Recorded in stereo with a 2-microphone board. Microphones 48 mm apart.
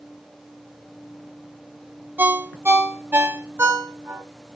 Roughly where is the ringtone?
Right.